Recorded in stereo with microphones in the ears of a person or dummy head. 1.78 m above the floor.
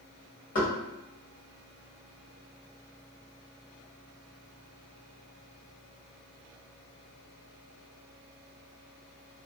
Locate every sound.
0.6 s knocking: 40° left (ahead or behind), 1.3 m